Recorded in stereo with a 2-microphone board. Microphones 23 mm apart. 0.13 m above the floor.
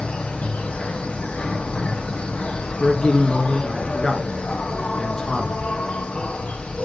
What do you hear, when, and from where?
0.0 s an insect: 65° left (ahead or behind), 1.1 m
2.8 s a man speaking: 25° left (ahead or behind), 1.2 m